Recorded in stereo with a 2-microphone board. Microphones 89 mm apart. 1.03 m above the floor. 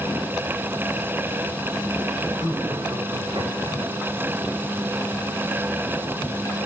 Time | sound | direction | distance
2.4 | laughter | 50° right (ahead or behind) | 7.5 m